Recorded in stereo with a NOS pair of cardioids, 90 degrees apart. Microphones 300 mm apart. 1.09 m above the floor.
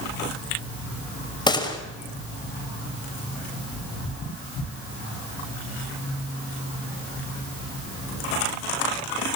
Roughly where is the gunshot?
Ahead.